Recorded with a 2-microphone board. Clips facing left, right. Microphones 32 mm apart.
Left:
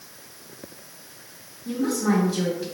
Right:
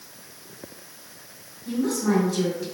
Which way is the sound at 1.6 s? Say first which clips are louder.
Even; 30° left (ahead or behind).